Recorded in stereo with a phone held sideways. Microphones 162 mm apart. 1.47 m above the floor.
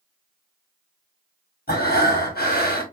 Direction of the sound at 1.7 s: 70° left (ahead or behind).